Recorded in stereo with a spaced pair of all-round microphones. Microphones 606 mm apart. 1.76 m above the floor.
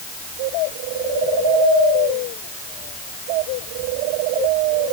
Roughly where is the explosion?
I don't hear an explosion.